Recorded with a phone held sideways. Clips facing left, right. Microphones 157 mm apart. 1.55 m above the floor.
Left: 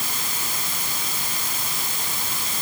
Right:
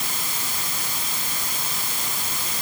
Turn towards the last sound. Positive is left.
No sound to turn to.